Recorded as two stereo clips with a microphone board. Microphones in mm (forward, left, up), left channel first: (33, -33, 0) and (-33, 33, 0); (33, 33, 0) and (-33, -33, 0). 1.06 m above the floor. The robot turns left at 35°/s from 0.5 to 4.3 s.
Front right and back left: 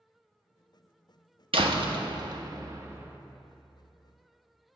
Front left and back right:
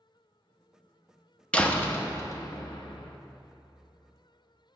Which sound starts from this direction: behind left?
A door slam, at 1.5 s.